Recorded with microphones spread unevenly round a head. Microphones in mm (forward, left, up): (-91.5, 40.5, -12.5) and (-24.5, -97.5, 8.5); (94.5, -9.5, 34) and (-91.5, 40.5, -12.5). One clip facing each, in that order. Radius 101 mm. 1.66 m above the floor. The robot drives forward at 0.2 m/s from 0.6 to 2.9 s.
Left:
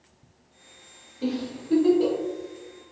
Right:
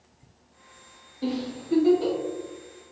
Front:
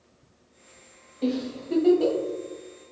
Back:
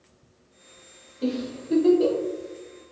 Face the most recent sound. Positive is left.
turn(degrees=95)